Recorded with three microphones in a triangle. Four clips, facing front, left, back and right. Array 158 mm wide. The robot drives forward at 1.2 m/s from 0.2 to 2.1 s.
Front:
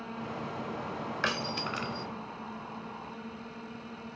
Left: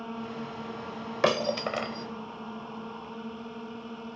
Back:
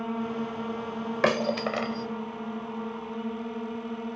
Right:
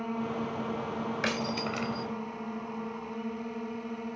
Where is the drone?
160° right.